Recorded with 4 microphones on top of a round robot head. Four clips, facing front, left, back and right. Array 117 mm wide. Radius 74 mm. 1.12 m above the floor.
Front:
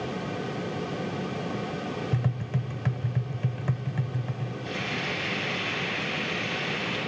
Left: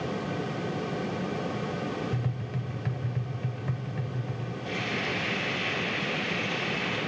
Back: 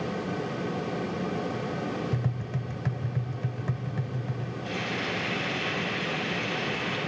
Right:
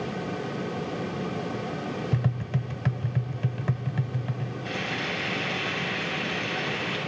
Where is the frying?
105° right, 7 m.